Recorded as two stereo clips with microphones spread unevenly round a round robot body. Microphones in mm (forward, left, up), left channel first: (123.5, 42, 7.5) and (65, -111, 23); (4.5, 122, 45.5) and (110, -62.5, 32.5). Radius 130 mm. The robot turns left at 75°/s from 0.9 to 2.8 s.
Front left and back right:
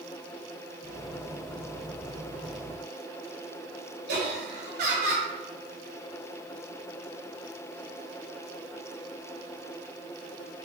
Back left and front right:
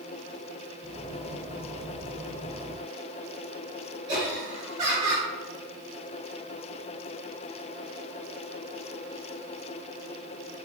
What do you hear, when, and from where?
4.1 s laughter: 130° right, 2.5 m